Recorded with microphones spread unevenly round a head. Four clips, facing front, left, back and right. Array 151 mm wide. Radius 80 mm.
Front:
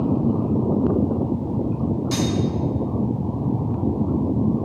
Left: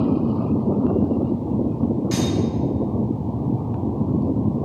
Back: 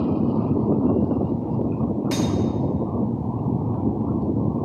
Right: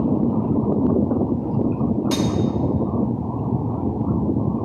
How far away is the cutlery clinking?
About 0.9 m.